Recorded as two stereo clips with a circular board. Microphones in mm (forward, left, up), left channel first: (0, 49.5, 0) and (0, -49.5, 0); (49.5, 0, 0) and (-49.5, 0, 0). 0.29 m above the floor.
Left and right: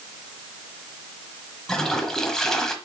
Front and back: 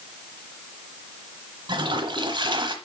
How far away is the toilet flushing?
About 1.1 m.